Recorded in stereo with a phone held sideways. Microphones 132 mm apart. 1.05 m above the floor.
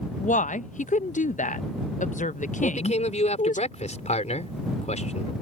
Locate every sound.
0.2 s a woman speaking: 75° left (ahead or behind)
2.6 s a man speaking: 60° left (ahead or behind)